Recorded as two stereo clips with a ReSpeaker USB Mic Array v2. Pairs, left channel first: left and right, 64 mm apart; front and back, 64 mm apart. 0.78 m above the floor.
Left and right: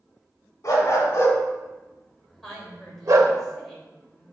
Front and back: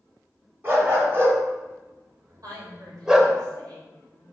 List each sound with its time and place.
0.6 s a dog barking: 130° left, 1.9 m; by 3.4 s 90° right, 0.9 m
2.4 s a woman speaking: 175° left, 3 m